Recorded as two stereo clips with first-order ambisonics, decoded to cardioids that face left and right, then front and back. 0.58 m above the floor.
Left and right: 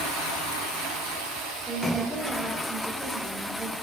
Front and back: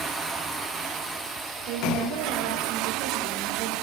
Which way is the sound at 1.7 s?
Straight behind.